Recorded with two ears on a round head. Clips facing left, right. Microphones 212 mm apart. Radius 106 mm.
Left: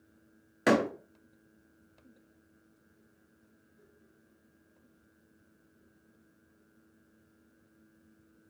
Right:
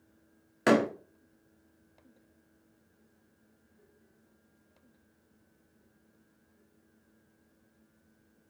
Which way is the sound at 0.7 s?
Centre (ahead or behind).